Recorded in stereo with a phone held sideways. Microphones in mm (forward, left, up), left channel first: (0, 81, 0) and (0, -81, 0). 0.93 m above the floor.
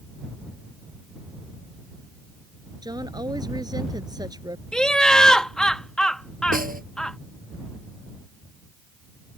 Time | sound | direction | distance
2.8 | a woman speaking | 25° right (ahead or behind) | ?
4.7 | laughter | 5° left (ahead or behind) | ?
6.5 | a snare drum | 60° right (ahead or behind) | ?